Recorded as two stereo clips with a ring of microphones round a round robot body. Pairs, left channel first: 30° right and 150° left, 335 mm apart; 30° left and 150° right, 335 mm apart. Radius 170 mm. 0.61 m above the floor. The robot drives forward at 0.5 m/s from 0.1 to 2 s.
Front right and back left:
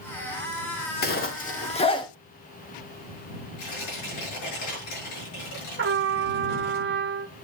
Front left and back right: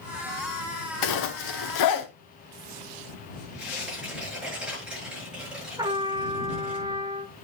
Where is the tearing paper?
60° right, 7 m.